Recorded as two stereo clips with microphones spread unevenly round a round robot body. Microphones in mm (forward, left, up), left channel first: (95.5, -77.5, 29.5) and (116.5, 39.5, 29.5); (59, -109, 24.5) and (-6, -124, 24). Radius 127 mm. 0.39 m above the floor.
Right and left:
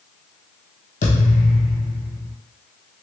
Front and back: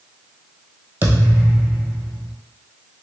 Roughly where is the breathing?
I don't hear breathing.